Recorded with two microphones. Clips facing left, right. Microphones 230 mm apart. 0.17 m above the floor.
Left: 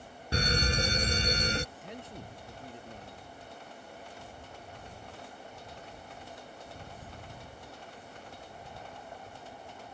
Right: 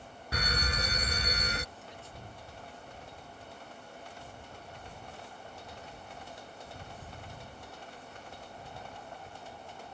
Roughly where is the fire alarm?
Left.